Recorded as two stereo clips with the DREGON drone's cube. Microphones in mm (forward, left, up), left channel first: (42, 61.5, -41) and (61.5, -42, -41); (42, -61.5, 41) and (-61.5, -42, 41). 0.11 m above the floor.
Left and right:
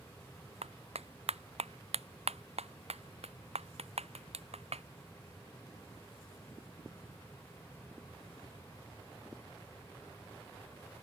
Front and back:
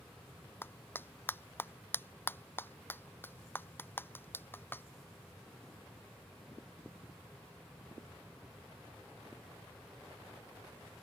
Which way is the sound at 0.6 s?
80° right.